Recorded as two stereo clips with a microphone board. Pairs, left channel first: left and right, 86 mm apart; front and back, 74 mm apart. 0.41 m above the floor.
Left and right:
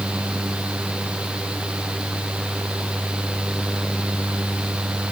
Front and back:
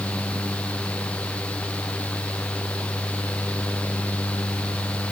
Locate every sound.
Only background noise.